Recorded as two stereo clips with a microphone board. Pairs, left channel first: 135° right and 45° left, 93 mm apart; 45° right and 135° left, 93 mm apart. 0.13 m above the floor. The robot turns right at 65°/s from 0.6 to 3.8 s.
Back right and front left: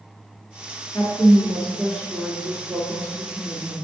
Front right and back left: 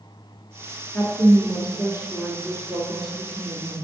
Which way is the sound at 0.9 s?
115° right.